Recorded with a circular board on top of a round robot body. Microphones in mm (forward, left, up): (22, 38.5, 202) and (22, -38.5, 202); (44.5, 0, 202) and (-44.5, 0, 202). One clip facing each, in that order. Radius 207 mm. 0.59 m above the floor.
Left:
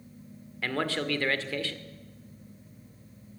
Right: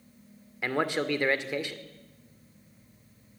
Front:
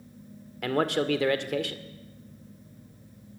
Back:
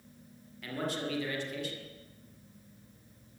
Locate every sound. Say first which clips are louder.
0.6 s a man speaking: right 2 dB, front 10 dB; 20° right, 2 m